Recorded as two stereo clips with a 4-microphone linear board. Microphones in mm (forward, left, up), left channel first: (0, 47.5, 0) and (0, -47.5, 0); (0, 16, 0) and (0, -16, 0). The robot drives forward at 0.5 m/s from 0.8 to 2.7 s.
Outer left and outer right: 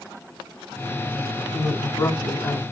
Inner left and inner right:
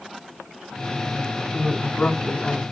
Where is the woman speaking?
45° left (ahead or behind), 2.5 m; by 2.6 s 50° left (ahead or behind), 2 m.